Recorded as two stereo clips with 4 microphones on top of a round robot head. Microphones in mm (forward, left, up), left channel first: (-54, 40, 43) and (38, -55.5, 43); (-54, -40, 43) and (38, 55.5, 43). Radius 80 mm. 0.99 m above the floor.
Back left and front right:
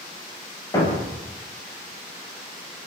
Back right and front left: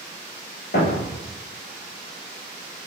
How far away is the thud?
About 8.5 m.